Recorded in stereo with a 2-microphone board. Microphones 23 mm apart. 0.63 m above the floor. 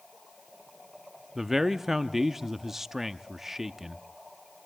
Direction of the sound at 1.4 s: 15° right (ahead or behind).